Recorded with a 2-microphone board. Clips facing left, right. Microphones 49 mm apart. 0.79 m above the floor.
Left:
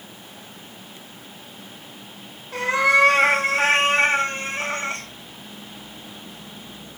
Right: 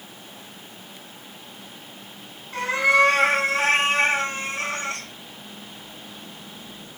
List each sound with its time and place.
2.5 s a cat meowing: 85° left, 1.6 m; by 5.0 s 25° left (ahead or behind), 1.1 m